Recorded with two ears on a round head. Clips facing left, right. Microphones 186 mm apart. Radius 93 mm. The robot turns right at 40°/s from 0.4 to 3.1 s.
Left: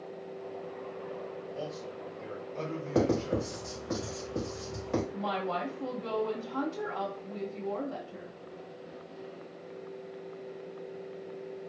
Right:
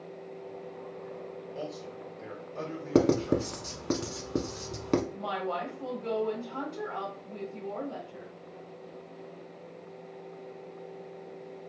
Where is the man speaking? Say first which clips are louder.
Right 2 dB; 20° right (ahead or behind), 1.3 m; by 3.6 s centre (ahead or behind), 1.3 m.